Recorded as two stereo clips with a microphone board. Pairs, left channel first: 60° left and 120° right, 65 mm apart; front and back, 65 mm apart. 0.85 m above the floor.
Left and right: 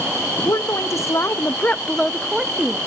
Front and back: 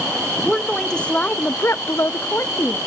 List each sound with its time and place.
0.5 s a woman speaking: 85° left, 1.0 m; by 2.8 s 50° right, 1.0 m